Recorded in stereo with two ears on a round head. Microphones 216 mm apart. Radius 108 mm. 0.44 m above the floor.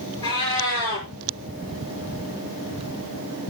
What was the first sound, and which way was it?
A cat meowing, 20° left (ahead or behind).